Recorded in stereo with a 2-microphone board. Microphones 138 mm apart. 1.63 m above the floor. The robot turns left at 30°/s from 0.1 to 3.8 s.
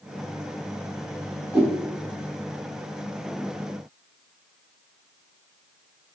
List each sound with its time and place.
1.5 s a whoosh: 10° right (ahead or behind), 1.9 m; by 1.8 s 5° right (ahead or behind), 1.9 m